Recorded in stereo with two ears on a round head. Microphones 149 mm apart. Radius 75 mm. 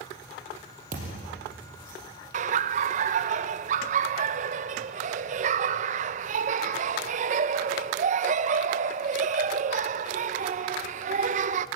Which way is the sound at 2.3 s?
45° right (ahead or behind).